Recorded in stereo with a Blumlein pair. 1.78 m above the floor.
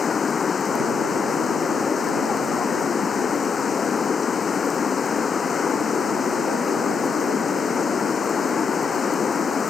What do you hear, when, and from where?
0.0 s running water: 20° left